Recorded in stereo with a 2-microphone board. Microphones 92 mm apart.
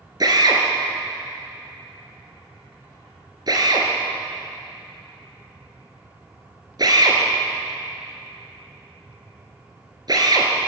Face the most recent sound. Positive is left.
turn(degrees=-45)  # may be behind; listen again after turning